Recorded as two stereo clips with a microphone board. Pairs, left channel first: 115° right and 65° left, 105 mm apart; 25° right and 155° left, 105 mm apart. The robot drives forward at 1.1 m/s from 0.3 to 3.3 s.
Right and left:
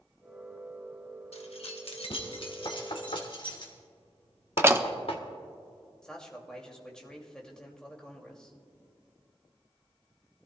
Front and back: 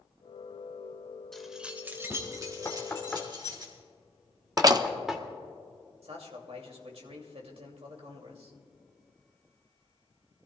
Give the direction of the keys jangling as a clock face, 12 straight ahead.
4 o'clock.